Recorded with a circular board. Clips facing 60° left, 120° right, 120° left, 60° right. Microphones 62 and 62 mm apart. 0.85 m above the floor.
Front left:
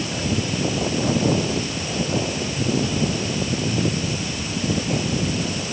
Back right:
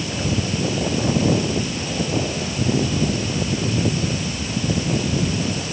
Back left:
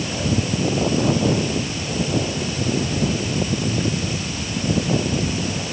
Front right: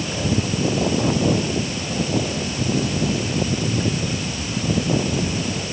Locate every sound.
Only background noise.